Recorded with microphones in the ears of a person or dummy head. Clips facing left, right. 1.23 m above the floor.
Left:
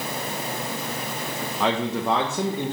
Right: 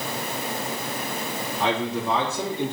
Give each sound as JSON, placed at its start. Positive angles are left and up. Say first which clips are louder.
{"t": 1.6, "sound": "a man speaking", "louder": "left 1 dB", "side_deg": 65, "distance_m": 1.8}